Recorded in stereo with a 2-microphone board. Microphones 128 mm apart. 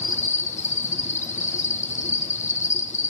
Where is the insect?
70° left (ahead or behind), 1.8 m.